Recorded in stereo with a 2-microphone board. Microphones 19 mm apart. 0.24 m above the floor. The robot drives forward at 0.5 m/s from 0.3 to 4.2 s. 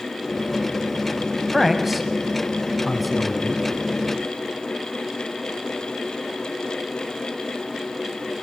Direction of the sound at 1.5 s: 10° right (ahead or behind).